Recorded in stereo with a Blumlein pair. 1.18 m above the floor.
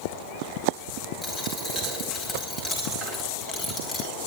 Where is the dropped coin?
20° left, 4 m.